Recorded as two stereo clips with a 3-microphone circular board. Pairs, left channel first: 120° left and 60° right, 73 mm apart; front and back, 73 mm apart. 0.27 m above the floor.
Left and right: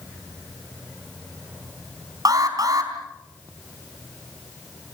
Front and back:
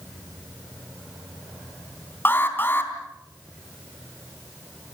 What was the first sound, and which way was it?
An alarm, 55° right.